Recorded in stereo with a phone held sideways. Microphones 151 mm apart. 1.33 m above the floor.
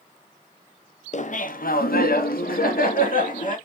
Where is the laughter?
50° left (ahead or behind), 0.8 m; by 3.6 s 60° left (ahead or behind), 1.7 m.